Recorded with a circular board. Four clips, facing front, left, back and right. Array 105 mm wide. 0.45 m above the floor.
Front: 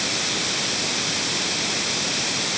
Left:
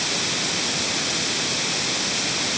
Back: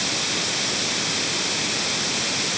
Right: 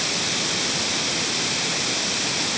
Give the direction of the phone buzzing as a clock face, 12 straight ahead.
I don't hear a phone buzzing.